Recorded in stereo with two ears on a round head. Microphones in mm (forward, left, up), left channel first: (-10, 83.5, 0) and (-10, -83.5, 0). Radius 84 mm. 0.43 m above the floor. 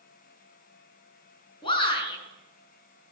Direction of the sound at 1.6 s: 30° left (ahead or behind).